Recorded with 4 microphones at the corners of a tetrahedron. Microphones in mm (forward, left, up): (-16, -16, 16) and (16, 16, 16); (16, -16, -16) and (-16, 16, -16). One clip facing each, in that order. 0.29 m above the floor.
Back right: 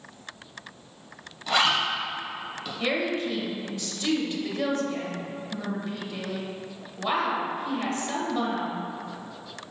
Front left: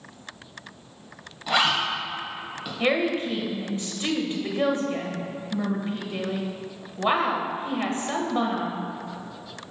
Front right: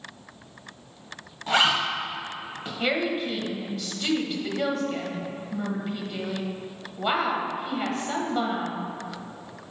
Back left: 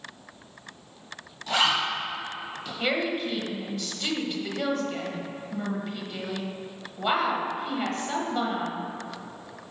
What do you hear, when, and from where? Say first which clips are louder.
1.5 s a zipper: front left 1 dB, front right 2 dB; 25° right, 1.7 m
2.8 s a woman speaking: front left 4 dB, front right 1 dB; 35° left, 1.0 m